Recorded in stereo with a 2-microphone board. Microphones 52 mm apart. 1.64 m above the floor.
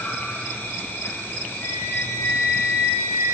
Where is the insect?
40° left (ahead or behind), 1.5 m.